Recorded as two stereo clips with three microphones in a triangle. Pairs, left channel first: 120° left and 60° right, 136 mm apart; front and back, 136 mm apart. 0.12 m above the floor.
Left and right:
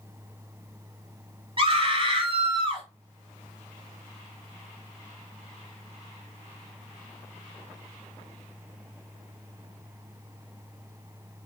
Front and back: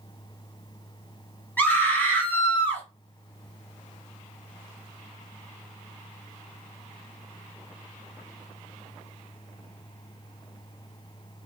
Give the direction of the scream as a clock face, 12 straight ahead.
2 o'clock.